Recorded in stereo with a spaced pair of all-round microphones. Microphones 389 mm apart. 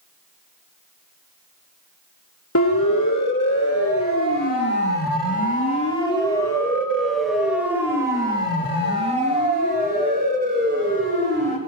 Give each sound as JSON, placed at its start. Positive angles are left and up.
{"t": 2.5, "sound": "a siren", "side_deg": 50, "distance_m": 3.0}